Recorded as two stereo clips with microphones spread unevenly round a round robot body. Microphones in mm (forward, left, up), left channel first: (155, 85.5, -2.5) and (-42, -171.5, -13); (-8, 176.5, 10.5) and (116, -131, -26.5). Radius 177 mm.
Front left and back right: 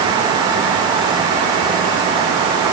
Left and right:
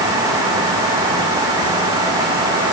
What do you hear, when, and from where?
Only background noise.